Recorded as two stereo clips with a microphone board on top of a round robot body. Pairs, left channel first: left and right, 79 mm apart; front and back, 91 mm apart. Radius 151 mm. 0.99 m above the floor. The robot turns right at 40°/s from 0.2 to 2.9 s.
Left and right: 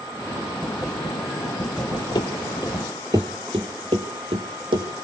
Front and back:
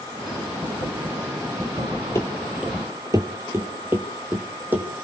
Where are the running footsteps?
60° left, 1.2 m; by 4.9 s 105° right, 2.5 m.